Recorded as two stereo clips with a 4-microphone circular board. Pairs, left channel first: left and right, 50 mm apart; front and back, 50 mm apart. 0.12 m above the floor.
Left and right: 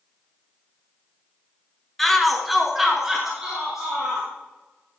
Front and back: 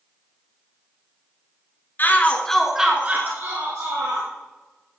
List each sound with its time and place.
2.0 s a shout: 5° left, 1.5 m; by 4.3 s 170° right, 3 m